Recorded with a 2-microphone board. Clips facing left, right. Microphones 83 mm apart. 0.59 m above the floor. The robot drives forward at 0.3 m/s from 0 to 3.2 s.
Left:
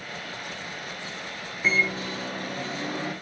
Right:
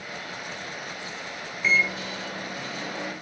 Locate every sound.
1.6 s a microwave: 40° left (ahead or behind), 0.5 m; by 3.1 s 25° left (ahead or behind), 0.8 m